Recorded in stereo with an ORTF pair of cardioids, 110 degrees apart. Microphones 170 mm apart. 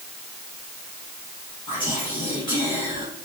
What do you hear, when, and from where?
1.7 s whispering: 30° left, 0.9 m